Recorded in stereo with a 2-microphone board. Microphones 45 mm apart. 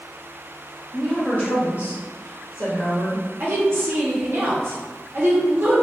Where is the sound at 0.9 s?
10° left (ahead or behind), 0.7 m; by 3.2 s 80° left, 1.4 m.